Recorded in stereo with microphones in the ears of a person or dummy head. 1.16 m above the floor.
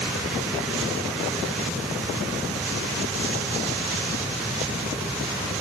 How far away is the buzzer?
I don't hear a buzzer.